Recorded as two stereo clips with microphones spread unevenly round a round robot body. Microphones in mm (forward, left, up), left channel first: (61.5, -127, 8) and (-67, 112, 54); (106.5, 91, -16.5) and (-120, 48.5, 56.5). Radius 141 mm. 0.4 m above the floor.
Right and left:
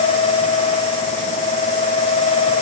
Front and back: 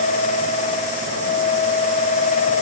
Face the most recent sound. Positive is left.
No sound to turn to.